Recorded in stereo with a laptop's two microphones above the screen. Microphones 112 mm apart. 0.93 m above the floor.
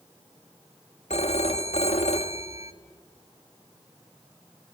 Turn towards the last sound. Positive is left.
turn(degrees=75)  # may be behind; listen again after turning